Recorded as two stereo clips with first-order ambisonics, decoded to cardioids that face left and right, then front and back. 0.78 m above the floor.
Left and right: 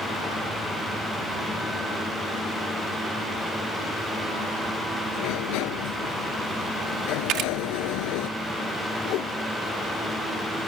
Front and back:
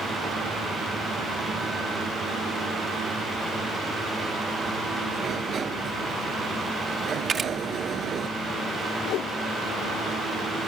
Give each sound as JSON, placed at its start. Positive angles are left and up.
{"t": 5.1, "sound": "a sliding door", "azimuth_deg": 115}
{"t": 7.3, "sound": "a camera shutter", "azimuth_deg": -115}
{"t": 9.1, "sound": "a whoosh", "azimuth_deg": 45}